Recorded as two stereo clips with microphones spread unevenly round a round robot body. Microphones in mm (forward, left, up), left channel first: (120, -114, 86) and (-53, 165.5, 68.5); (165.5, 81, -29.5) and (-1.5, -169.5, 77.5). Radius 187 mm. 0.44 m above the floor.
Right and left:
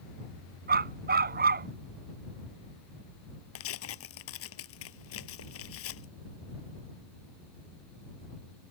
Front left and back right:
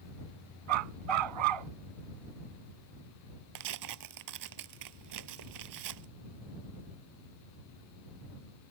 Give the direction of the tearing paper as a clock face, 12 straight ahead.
4 o'clock.